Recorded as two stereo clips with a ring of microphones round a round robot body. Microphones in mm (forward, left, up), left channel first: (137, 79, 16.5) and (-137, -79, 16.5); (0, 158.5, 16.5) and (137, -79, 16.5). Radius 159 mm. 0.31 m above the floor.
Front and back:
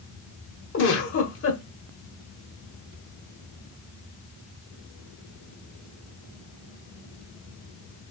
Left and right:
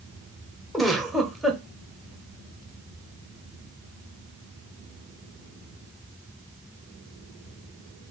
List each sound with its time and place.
0.7 s a giggle: 30° left, 1.4 m